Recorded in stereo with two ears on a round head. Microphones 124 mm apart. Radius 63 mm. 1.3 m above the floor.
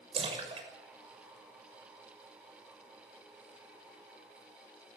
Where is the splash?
45° right (ahead or behind), 6.5 m.